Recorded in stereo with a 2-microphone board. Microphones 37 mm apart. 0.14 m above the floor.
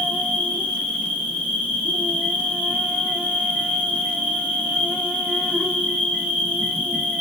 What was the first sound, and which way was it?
An insect, 50° right (ahead or behind).